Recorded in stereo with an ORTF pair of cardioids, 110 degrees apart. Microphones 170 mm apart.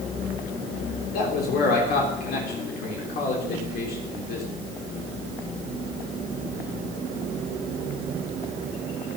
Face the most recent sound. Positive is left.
turn(degrees=65)